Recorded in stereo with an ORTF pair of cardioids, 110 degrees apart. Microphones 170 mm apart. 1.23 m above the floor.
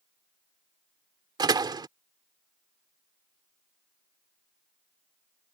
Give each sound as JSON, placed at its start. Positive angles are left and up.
{"t": 1.4, "sound": "a door slam", "azimuth_deg": -25}